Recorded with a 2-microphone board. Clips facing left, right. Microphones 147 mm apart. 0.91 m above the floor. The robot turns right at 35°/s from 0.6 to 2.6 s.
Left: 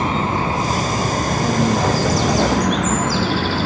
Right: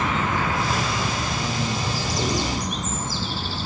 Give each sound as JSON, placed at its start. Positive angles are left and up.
{"t": 0.0, "sound": "a vehicle", "side_deg": 30}